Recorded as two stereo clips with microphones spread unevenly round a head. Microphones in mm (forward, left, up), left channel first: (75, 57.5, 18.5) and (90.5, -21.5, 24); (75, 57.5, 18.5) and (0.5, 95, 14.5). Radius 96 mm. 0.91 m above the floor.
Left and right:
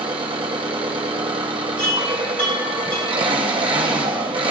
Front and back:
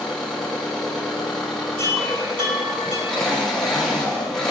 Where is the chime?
150° left, 3 m.